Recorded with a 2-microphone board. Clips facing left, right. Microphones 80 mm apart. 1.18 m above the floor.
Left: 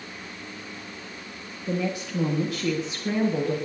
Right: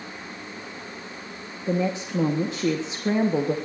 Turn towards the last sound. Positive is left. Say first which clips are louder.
# right 3 dB
turn(degrees=-25)  # may be behind; listen again after turning